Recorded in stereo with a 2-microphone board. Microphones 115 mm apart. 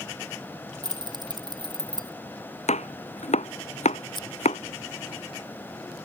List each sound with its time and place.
0.8 s keys jangling: 35° right (ahead or behind)
2.7 s chopping: 80° left
4.1 s scissors: 40° left (ahead or behind)